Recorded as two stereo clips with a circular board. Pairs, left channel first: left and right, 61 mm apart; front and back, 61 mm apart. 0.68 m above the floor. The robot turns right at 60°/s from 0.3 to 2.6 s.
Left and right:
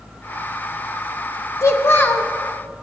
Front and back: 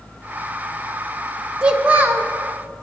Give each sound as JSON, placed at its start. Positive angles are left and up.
{"t": 1.6, "sound": "a child speaking", "azimuth_deg": 105, "distance_m": 0.7}